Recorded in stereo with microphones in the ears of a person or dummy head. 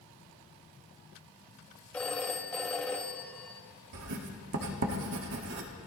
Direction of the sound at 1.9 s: 10° left (ahead or behind).